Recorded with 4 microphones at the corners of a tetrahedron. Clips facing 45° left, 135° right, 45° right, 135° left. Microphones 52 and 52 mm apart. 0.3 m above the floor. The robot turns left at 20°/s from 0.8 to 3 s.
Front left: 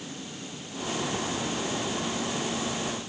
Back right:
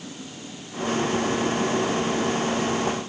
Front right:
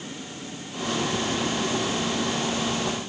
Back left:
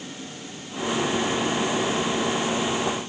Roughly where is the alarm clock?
No alarm clock in this recording.